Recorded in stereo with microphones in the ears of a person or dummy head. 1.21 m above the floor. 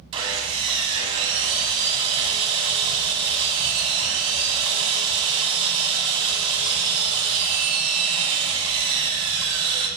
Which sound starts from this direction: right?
Sawing, at 0.1 s.